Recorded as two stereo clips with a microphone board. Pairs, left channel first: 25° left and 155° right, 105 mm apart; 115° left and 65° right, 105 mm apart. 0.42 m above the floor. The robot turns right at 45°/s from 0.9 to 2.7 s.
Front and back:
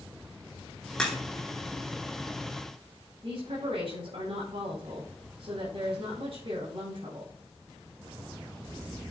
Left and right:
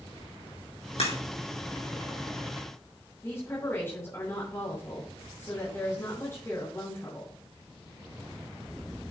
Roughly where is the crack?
Left.